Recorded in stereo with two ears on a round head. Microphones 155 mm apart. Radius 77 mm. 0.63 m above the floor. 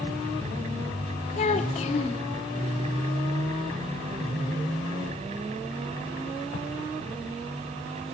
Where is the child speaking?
40° left (ahead or behind), 0.8 m.